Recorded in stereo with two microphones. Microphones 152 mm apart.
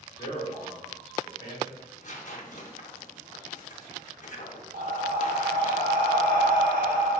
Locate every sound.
0.2 s a man speaking: 30° left (ahead or behind), 1.4 m
1.8 s tearing paper: 55° left (ahead or behind), 0.7 m
4.7 s breathing: 65° right (ahead or behind), 0.7 m